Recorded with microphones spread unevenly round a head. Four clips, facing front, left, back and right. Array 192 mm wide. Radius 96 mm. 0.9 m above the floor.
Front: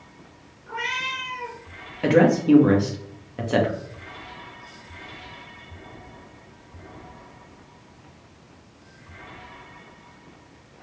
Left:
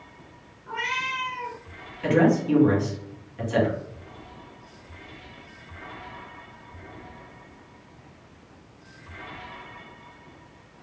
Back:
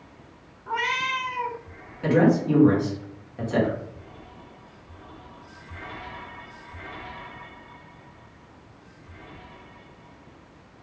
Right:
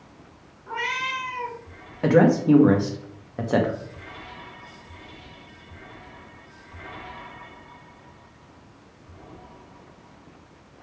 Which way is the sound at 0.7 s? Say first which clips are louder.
Right 1 dB, back 4 dB; 165° right.